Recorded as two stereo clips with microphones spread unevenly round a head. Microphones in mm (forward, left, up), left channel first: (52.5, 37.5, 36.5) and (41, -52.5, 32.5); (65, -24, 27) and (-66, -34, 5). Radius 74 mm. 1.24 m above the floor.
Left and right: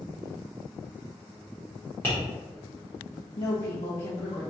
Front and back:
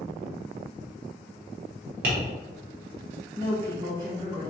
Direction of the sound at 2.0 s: 155° left.